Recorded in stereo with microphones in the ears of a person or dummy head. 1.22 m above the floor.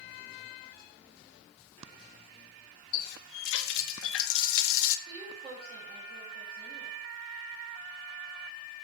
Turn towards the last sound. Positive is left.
turn(degrees=-35)  # may be behind; listen again after turning